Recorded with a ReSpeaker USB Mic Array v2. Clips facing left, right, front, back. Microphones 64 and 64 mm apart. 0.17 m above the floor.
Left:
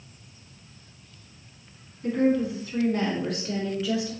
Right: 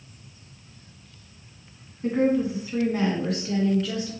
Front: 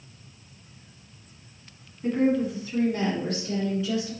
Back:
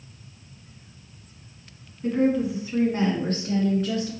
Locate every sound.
2.0 s a woman speaking: 75° right, 1.3 m; by 4.1 s 170° left, 2 m